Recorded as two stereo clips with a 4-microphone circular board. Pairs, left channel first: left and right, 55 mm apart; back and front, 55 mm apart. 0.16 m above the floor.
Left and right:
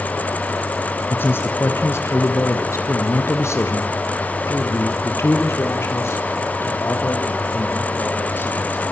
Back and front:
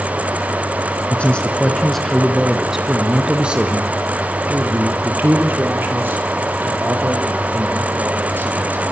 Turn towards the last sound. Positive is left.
turn(degrees=45)